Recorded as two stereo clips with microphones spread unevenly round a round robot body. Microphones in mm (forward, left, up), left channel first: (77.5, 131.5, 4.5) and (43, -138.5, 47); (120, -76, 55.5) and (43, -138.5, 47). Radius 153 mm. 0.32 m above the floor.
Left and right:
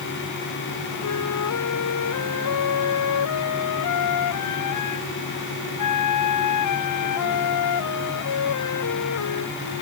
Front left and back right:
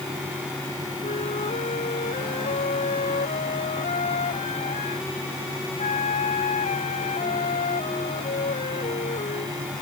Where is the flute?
65° left.